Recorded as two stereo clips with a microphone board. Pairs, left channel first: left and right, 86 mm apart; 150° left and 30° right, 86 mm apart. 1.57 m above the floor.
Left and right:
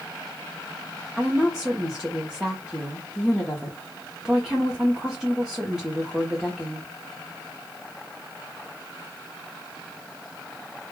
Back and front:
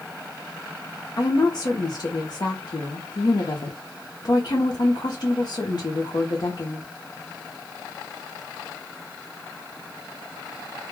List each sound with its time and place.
1.2 s a woman speaking: straight behind, 0.6 m